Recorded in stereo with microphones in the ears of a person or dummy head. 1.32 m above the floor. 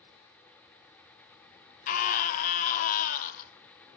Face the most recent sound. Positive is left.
turn(degrees=45)  # may be behind; listen again after turning